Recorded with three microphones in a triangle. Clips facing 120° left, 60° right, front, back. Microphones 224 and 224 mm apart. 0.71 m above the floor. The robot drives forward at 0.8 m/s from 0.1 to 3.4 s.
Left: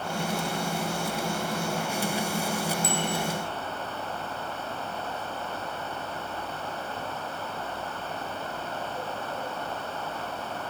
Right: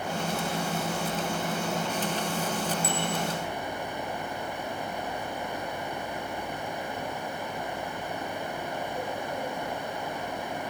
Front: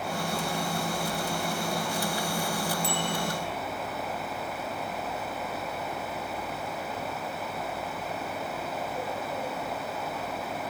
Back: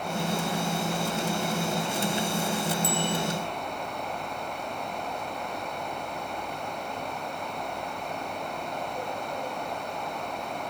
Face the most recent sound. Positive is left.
turn(degrees=-25)